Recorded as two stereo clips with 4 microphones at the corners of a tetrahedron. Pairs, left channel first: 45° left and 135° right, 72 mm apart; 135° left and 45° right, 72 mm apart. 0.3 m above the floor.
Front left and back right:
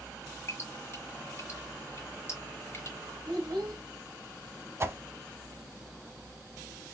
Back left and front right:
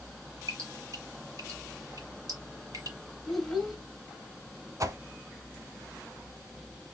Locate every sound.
0.5 s dripping: 10° right, 4 m
3.3 s a child speaking: 135° right, 1.7 m
4.8 s a whoosh: 85° right, 0.6 m